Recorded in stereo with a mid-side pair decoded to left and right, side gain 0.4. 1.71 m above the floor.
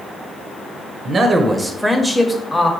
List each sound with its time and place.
1.1 s a man speaking: 50° right, 0.6 m; by 2.7 s 25° left, 1.0 m